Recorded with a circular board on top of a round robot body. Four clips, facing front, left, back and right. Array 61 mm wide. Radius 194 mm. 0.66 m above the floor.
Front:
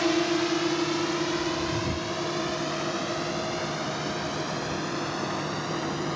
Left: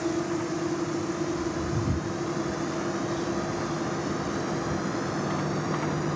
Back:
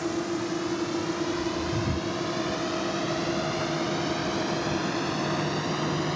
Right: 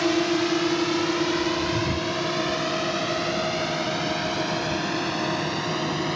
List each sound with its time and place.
0.0 s a drone: 60° right; by 6.2 s 100° right